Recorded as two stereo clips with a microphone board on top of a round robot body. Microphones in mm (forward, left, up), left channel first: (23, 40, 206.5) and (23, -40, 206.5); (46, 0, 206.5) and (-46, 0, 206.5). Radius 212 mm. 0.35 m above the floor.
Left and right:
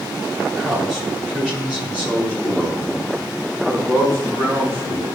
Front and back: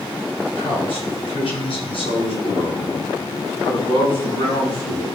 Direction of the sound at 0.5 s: 10° right.